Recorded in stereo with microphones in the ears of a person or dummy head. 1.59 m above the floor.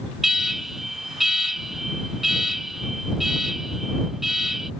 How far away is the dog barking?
No dog barking in this recording.